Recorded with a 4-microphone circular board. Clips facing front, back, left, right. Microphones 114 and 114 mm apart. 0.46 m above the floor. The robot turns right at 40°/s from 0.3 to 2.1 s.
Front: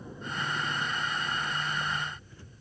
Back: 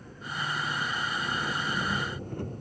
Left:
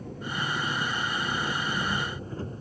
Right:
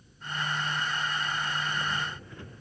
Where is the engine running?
75° left; by 2.6 s 145° left.